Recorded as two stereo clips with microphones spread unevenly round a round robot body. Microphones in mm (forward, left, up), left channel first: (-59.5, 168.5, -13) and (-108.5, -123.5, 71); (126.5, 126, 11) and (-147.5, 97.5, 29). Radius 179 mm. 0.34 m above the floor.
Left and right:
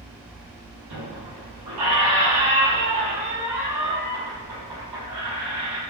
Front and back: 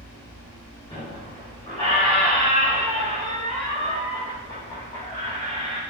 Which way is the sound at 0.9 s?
70° right.